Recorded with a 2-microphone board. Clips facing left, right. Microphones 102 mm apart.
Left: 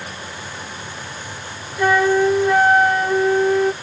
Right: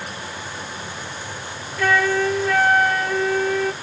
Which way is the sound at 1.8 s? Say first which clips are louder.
Left 4 dB; 20° left (ahead or behind).